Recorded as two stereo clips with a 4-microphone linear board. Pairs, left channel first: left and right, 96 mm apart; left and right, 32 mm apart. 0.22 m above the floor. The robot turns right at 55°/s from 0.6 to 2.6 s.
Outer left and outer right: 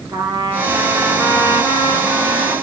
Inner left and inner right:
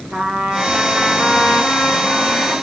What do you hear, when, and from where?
0.1 s a trumpet: 30° right, 4 m; by 2.5 s 75° left, 4 m